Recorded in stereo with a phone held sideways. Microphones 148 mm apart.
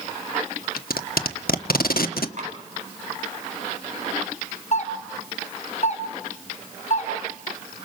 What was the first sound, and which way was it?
Tape being pulled, 90° left.